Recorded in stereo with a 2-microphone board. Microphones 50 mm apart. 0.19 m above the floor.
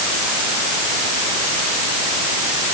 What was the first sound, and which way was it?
Only background noise.